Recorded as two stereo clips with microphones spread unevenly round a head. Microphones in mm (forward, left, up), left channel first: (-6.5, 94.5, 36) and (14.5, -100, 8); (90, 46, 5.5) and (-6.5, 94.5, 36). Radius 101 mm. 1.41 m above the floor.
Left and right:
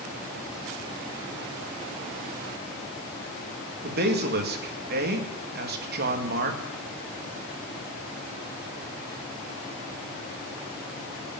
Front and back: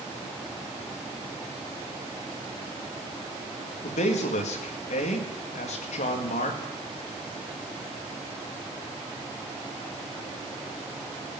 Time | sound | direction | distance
3.8 | a man speaking | 45° right | 1.9 m